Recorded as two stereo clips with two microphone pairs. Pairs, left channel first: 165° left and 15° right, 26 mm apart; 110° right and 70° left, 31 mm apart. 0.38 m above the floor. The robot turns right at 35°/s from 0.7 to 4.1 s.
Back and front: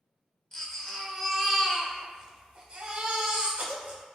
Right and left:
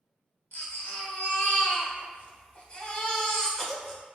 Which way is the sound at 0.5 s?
130° right.